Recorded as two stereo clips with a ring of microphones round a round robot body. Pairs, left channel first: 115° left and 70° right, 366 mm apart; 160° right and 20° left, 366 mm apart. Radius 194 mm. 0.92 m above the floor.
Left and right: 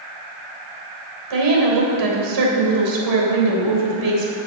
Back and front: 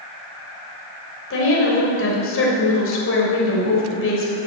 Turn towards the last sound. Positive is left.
turn(degrees=-100)